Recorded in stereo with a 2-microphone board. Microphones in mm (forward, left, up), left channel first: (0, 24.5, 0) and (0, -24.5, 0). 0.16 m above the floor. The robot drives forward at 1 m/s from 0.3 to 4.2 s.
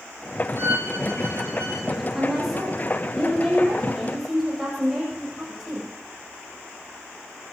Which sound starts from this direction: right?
A violin, at 0.6 s.